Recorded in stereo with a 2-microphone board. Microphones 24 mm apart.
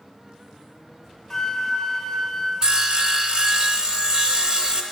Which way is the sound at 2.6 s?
35° right (ahead or behind).